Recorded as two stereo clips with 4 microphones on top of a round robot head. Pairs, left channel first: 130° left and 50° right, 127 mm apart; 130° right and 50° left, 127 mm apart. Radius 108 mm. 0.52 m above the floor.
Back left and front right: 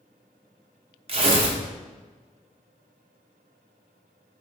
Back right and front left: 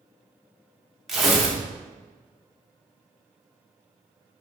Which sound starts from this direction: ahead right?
Tearing paper, at 1.1 s.